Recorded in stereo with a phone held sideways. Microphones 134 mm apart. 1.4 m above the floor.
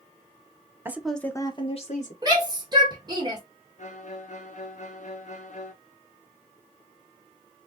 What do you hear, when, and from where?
0.8 s a woman speaking: 15° right (ahead or behind), 0.9 m; by 2.1 s 60° left (ahead or behind), 1.4 m
2.2 s a shout: 30° right (ahead or behind), 1.3 m
3.8 s a violin: 60° left (ahead or behind), 0.8 m